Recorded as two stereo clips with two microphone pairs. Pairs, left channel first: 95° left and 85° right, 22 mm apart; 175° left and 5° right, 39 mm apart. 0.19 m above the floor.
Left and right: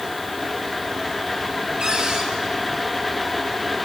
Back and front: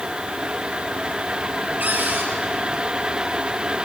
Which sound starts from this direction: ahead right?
A cupboard door, at 1.8 s.